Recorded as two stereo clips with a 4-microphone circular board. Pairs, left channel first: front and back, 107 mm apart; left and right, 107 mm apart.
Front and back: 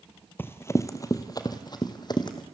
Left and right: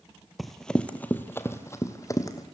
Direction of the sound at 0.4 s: Straight ahead.